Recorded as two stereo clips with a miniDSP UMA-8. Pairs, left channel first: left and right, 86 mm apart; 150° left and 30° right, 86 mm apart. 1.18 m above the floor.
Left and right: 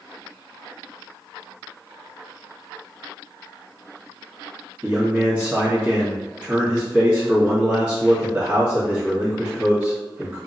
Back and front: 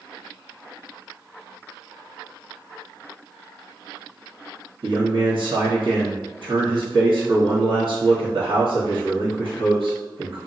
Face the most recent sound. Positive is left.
turn(degrees=-10)